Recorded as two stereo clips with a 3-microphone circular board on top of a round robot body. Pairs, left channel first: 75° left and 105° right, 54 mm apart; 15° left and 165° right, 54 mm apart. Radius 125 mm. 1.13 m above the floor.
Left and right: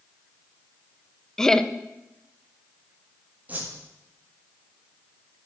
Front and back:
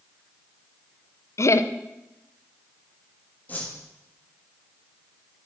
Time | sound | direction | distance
1.4 | laughter | 5° right | 0.8 m
3.5 | a whoosh | 45° right | 2 m